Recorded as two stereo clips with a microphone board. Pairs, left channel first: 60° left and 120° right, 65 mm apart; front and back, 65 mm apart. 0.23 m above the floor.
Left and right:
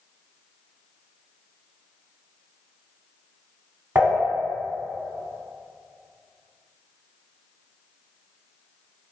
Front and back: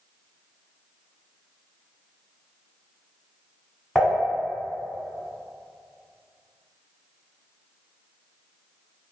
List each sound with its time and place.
4.0 s dishes clattering: 80° right, 1.3 m